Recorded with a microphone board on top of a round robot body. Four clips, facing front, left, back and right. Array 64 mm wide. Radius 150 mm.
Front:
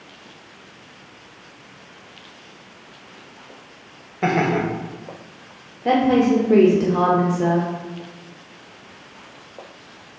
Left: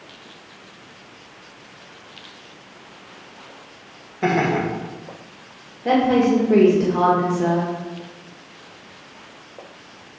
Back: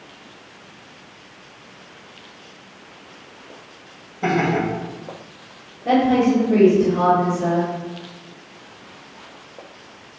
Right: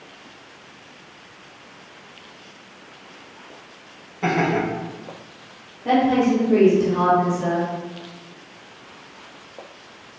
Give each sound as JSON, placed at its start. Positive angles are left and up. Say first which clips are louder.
{"t": 4.2, "sound": "laughter", "louder": "left 1 dB, even", "azimuth_deg": 15, "distance_m": 3.0}
{"t": 5.8, "sound": "a woman speaking", "louder": "left 1 dB, even", "azimuth_deg": 20, "distance_m": 1.5}